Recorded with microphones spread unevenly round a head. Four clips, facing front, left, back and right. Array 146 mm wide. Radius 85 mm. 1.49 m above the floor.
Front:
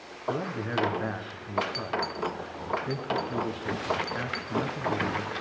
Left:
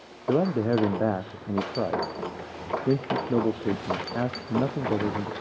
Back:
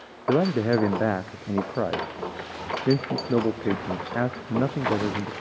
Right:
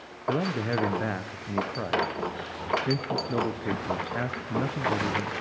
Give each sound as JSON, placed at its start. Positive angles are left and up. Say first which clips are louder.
{"t": 0.3, "sound": "a man speaking", "louder": "left 5 dB, back 10 dB", "azimuth_deg": 145, "distance_m": 0.7}